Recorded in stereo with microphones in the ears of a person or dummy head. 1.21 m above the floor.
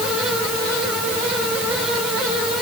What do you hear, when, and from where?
Only background noise.